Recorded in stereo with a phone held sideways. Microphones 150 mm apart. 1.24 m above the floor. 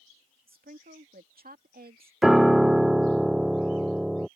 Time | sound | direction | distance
0.5 | a woman speaking | 75° right (ahead or behind) | ?
2.2 | a piano | centre (ahead or behind) | ?